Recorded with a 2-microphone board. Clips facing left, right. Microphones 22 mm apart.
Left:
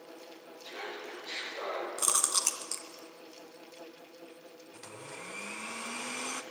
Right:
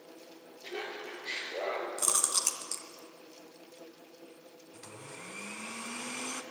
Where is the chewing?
15° left (ahead or behind), 0.9 m.